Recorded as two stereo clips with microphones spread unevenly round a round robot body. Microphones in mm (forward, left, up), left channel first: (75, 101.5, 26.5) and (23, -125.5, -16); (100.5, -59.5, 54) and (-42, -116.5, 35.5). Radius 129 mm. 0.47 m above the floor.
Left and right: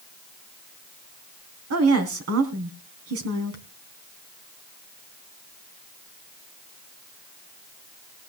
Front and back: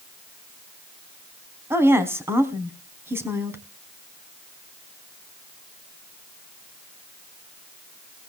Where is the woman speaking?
85° right, 4 m.